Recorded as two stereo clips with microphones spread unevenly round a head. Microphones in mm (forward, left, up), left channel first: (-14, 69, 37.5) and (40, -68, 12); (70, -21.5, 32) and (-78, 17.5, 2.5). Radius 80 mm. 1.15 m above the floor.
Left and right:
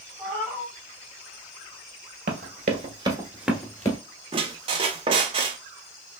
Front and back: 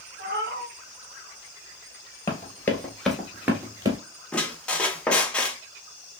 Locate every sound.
0.2 s a cat meowing: 175° right, 1.7 m
2.3 s running footsteps: 65° right, 1.5 m; by 4.0 s 95° left, 1.3 m
4.3 s a squeak: 50° right, 0.5 m